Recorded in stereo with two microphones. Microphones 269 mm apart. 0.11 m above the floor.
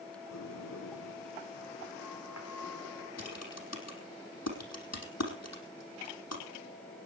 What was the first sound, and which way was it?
A sliding door, 75° left (ahead or behind).